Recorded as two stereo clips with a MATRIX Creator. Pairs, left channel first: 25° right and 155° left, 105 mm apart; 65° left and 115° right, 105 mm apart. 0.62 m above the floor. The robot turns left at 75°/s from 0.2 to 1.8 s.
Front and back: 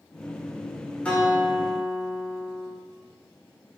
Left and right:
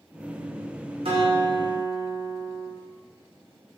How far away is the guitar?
About 2 m.